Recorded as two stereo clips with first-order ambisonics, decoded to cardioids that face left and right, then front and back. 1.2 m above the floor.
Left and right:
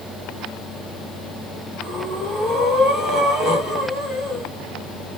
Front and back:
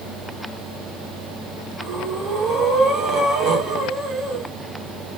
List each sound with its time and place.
1.8 s breathing: 140° left, 1.0 m